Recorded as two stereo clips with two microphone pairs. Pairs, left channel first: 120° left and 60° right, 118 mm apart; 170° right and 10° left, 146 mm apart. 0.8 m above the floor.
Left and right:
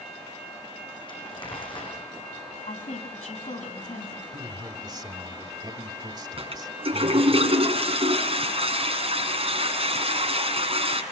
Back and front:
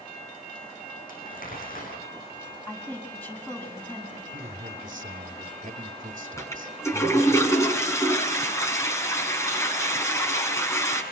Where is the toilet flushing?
100° right, 6.5 m.